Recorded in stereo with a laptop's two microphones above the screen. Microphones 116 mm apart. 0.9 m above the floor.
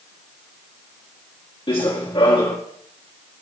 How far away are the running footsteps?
About 3.5 m.